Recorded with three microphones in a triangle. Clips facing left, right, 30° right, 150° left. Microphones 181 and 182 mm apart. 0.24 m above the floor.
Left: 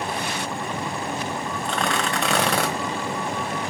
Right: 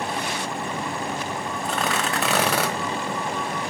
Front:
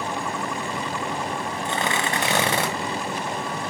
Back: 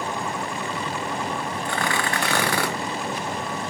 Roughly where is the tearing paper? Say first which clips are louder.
Left 1 dB, front 1 dB; ahead.